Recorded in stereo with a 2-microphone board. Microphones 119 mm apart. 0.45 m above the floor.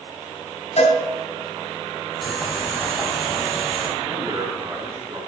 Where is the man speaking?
50° right (ahead or behind), 3.5 m.